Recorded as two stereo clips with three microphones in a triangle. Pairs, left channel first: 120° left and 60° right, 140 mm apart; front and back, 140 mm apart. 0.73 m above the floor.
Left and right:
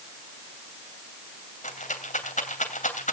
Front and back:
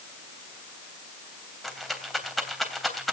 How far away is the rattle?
About 3 m.